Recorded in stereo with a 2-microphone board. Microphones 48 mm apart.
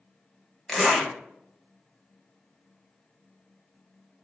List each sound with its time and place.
0.7 s a zipper: 15° left (ahead or behind), 1.1 m